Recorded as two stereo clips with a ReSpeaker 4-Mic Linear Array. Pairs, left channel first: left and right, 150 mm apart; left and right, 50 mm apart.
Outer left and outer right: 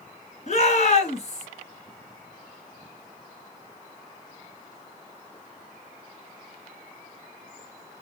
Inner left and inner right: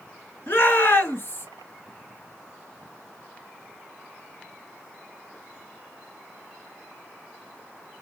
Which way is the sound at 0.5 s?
55° left (ahead or behind).